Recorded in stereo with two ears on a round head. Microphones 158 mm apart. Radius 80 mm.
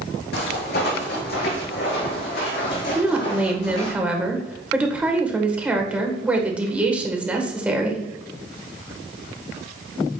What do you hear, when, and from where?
0.3 s footsteps: 60° left (ahead or behind), 3 m; by 4.0 s 40° left (ahead or behind), 3.5 m
3.0 s a woman speaking: 10° right (ahead or behind), 1.4 m